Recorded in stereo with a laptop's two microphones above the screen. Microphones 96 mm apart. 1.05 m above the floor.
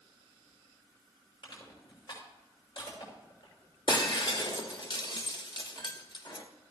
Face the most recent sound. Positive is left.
turn(degrees=50)  # may be behind; listen again after turning